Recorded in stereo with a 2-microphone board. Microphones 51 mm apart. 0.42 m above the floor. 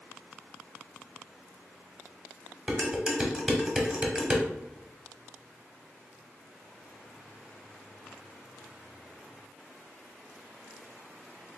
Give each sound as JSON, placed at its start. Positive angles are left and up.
{"t": 2.7, "sound": "dishes clattering", "side_deg": -20, "distance_m": 0.9}